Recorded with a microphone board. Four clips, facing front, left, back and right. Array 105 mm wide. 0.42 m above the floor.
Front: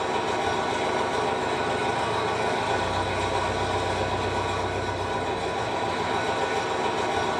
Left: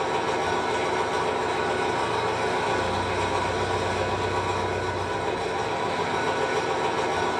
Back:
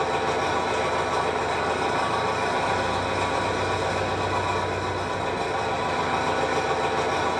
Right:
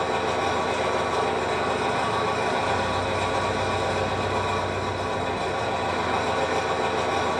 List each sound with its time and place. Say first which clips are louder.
0.0 s an engine running: right 1 dB, back 2 dB; 150° right, 1.3 m